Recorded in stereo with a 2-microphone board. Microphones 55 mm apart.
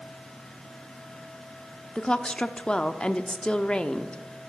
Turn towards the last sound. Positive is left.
turn(degrees=15)  # may be behind; listen again after turning